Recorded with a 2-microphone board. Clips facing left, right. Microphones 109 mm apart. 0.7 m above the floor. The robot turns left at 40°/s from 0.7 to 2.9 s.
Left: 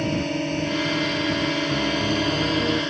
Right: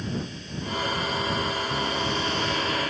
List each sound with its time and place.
0.0 s a drone: 110° left; by 2.9 s 25° left
1.7 s a piano: 175° left; by 2.8 s 130° left